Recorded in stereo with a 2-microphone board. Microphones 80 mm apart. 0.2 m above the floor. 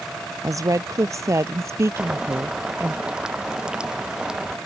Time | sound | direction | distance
0.4 | a woman speaking | 40° right (ahead or behind) | ?
2.0 | boiling | 10° right (ahead or behind) | ?